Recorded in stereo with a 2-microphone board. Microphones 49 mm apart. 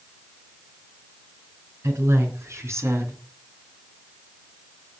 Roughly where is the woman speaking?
Right.